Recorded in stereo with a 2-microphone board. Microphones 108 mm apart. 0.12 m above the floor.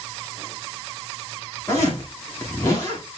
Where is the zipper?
30° left (ahead or behind), 8.5 m.